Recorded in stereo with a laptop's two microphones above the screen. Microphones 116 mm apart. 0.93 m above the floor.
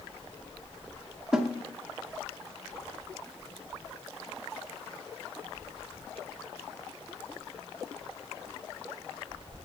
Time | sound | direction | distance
1.3 | a snare drum | 5° right (ahead or behind) | 0.5 m